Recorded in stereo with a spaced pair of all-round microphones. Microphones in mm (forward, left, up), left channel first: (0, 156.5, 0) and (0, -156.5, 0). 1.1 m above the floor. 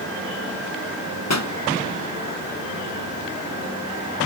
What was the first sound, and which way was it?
A pop, 60° left (ahead or behind).